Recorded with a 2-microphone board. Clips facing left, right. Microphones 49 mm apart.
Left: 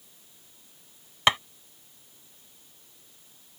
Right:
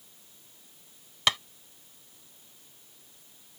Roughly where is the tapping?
Left.